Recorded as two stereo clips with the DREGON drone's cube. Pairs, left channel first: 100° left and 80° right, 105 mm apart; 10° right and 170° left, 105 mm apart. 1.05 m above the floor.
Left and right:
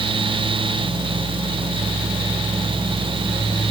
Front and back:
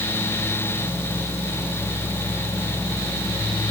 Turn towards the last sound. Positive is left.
No sound to turn to.